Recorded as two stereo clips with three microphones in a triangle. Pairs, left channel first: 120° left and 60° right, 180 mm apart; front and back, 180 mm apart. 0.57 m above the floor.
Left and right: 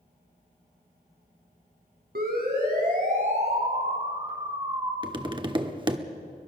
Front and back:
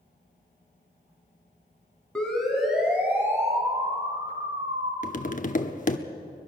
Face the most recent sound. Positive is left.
turn(degrees=-10)